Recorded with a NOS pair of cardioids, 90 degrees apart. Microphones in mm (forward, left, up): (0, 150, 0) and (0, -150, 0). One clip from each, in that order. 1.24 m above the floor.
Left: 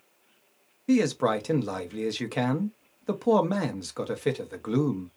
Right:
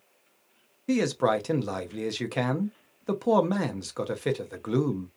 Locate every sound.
0.9 s a man speaking: 5° right, 0.7 m